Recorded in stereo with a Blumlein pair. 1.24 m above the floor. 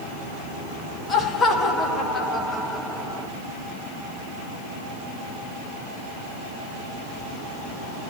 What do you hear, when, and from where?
1.1 s laughter: 20° left, 2.5 m; by 3.3 s 10° right, 1.9 m